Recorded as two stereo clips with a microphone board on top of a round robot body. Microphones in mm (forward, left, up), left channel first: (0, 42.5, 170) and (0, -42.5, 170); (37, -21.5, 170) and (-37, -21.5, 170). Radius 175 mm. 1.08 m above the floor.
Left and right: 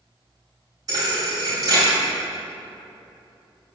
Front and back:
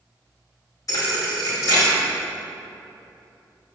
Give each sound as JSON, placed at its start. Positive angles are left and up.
{"t": 0.9, "sound": "a thud", "azimuth_deg": -45, "distance_m": 2.5}